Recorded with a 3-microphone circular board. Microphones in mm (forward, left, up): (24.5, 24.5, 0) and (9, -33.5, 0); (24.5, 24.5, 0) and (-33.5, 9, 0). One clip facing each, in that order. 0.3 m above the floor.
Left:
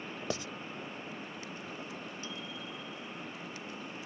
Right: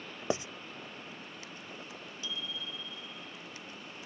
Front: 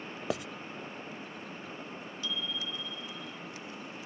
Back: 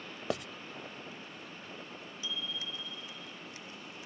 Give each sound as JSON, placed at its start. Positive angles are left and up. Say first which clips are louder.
{"t": 0.3, "sound": "writing", "louder": "right 5 dB, front 1 dB", "azimuth_deg": -75}
{"t": 2.2, "sound": "a bicycle bell", "louder": "right 1 dB, front 3 dB", "azimuth_deg": 125}